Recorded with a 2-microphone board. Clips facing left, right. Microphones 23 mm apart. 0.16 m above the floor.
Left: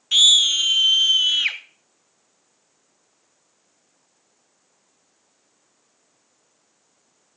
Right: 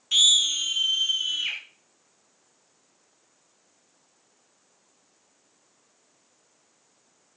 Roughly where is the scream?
Centre.